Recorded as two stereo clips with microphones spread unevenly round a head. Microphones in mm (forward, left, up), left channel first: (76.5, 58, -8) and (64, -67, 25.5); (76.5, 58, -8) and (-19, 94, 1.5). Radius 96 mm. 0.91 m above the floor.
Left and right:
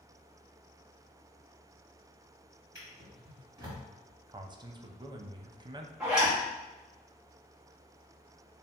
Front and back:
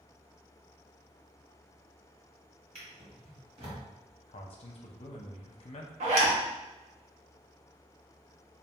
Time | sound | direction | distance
2.8 | a drawer | 165° right | 1.5 m
4.3 | a man speaking | 35° right | 0.6 m
6.0 | a zipper | 175° left | 0.9 m